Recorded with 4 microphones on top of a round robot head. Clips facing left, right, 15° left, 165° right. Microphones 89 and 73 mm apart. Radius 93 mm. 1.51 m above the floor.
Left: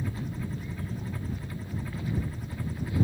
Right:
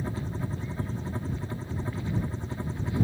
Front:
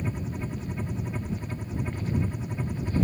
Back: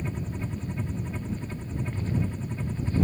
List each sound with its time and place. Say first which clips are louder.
0.0 s a helicopter: right 2 dB, front 1 dB; 65° right; by 3.0 s 55° right